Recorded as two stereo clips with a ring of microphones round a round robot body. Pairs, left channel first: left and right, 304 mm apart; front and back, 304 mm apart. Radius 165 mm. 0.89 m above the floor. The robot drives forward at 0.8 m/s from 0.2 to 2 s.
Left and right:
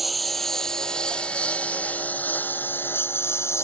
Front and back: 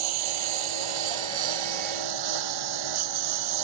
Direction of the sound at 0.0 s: Straight behind.